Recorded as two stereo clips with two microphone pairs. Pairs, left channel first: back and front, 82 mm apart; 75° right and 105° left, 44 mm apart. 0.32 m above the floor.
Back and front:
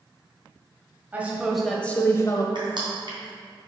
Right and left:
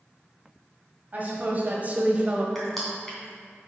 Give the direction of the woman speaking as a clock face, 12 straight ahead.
10 o'clock.